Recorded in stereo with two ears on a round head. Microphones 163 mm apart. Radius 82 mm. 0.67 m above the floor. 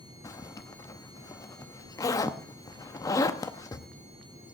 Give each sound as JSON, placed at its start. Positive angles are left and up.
{"t": 0.2, "sound": "a zipper", "side_deg": 20, "distance_m": 0.8}